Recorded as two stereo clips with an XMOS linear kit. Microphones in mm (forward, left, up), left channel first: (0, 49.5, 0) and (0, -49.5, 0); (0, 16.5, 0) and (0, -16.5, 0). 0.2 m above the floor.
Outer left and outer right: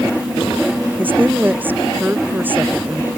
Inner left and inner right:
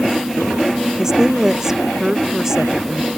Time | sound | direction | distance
1.0 | a woman speaking | 20° right (ahead or behind) | ?